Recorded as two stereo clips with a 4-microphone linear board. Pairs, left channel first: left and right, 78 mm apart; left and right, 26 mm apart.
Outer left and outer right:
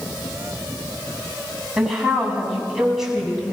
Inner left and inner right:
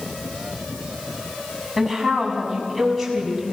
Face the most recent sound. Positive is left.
turn(degrees=-5)  # may be behind; listen again after turning